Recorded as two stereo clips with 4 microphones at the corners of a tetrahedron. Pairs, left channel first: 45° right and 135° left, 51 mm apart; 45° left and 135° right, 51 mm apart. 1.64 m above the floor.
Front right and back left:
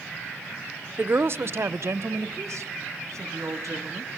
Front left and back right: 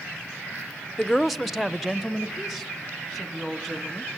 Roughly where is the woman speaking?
Behind left.